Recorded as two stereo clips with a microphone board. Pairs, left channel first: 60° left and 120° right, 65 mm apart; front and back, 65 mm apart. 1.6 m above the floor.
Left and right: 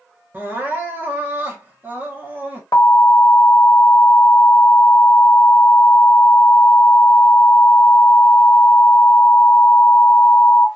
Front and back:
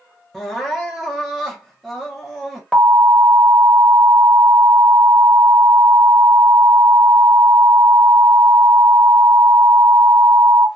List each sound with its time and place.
0.3 s crying: 85° right, 0.8 m
2.7 s an alarm: 80° left, 1.1 m